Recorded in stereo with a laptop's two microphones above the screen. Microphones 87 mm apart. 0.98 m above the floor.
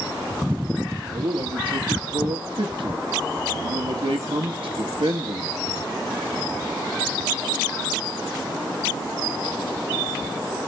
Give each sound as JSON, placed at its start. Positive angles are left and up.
{"t": 1.1, "sound": "a man speaking", "side_deg": -75, "distance_m": 1.5}